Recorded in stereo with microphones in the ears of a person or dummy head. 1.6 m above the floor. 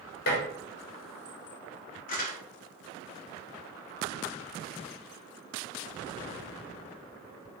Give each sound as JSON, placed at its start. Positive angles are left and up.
{"t": 0.3, "sound": "dishes clattering", "side_deg": 55, "distance_m": 1.0}
{"t": 2.1, "sound": "crumpling", "side_deg": 45, "distance_m": 0.9}